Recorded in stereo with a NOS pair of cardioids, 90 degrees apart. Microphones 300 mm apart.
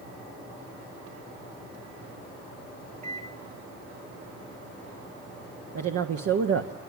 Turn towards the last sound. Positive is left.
turn(degrees=-60)